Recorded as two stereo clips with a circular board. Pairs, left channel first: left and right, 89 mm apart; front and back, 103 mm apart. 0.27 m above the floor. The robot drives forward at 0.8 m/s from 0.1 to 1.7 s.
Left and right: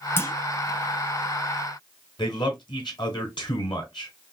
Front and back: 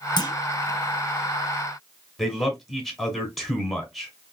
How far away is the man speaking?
About 1.8 m.